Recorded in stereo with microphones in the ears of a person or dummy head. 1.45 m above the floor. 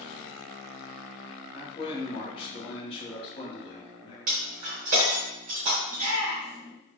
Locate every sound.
1.5 s a man speaking: 35° left (ahead or behind), 0.9 m
4.3 s breaking glass: 50° right (ahead or behind), 0.9 m
5.9 s a shout: 80° right, 0.9 m